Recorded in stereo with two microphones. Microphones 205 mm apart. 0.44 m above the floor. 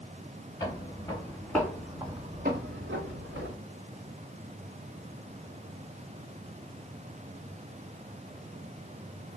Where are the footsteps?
20° left (ahead or behind), 2.5 m; by 3.6 s 65° right (ahead or behind), 1.5 m.